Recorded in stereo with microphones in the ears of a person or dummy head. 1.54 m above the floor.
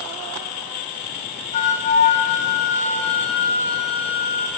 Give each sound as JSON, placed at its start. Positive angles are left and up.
{"t": 1.5, "sound": "a flute", "side_deg": 40, "distance_m": 0.6}